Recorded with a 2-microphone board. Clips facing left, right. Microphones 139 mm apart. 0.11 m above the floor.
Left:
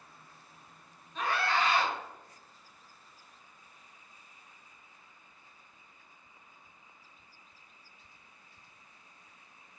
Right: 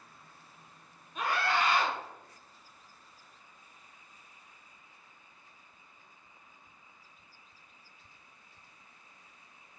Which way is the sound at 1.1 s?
10° right (ahead or behind).